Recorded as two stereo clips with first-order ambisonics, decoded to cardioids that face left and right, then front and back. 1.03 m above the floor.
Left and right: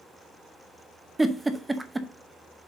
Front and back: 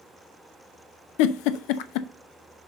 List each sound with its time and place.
1.2 s a giggle: 10° right, 0.7 m